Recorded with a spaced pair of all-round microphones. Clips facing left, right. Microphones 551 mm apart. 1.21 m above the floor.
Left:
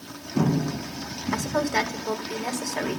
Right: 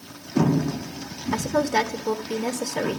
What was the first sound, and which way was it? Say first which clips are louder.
A woman speaking: right 3 dB; 55° right (ahead or behind).